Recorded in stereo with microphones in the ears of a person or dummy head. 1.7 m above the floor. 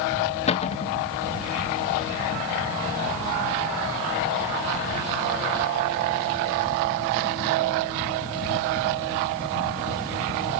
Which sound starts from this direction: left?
A cupboard door, at 0.5 s.